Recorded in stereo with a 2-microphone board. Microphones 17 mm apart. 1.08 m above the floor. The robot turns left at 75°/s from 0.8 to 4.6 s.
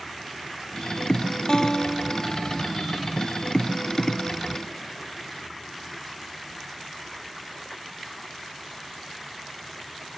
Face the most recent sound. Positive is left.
turn(degrees=170)